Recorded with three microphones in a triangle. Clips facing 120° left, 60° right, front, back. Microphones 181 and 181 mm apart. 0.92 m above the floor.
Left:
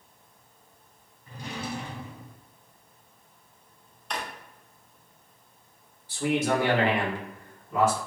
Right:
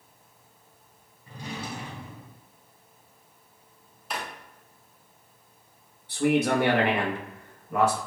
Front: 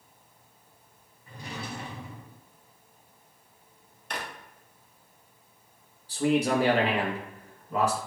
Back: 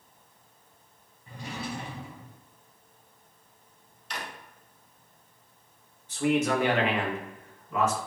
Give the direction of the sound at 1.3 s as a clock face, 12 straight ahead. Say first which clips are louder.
Left 1 dB, back 2 dB; 4 o'clock.